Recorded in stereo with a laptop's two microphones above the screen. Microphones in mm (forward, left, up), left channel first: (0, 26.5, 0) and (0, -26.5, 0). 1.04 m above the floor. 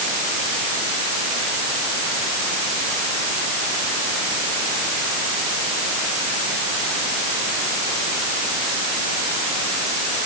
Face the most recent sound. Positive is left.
No sound to turn to.